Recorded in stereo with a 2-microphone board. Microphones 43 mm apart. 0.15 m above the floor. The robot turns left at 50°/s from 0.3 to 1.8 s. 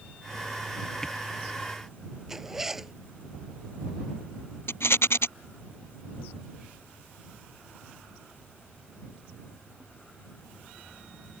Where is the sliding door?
No sliding door in this recording.